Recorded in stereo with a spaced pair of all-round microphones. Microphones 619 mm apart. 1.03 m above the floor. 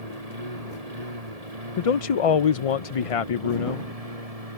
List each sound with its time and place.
0.0 s a lawn mower: 75° right (ahead or behind); by 4.6 s 70° right (ahead or behind)
1.8 s a man speaking: 65° left (ahead or behind)